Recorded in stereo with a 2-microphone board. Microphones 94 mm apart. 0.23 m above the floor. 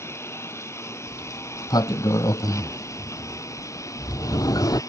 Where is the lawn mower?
25° left (ahead or behind); by 4.9 s 30° left (ahead or behind).